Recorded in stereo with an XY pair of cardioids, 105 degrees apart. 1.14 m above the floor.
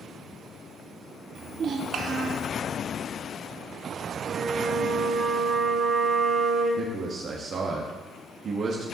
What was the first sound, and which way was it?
A child speaking, 55° right.